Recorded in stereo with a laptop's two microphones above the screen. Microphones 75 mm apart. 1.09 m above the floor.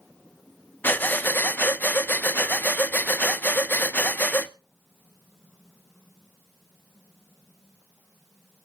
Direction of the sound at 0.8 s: 25° left (ahead or behind).